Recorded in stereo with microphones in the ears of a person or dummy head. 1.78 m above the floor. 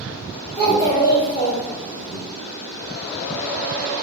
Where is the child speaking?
15° left (ahead or behind), 1.6 m; by 2.2 s 50° left (ahead or behind), 1.9 m.